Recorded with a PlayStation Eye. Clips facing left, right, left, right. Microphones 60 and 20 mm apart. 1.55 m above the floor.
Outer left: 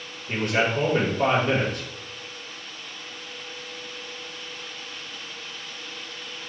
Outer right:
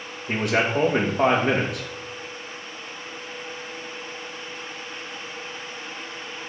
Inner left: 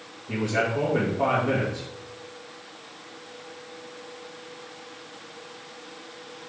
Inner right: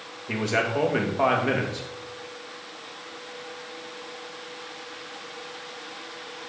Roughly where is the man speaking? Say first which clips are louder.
Outer right 1 dB, inner right 1 dB; right.